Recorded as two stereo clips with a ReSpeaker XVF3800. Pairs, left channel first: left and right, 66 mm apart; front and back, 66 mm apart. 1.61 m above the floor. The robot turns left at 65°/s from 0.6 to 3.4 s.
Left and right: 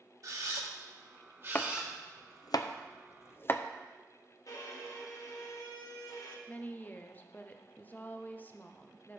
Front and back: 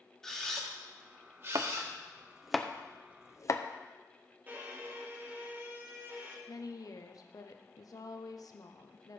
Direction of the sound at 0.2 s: 80° right.